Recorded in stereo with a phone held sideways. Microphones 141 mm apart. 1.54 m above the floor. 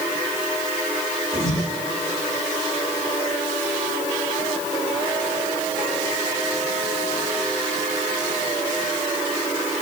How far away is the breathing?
About 6.5 m.